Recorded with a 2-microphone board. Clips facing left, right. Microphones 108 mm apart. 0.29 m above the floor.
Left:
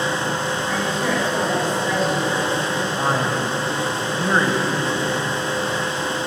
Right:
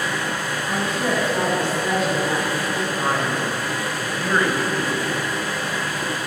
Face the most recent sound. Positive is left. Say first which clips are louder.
# left 2 dB
turn(degrees=25)  # may be behind; listen again after turning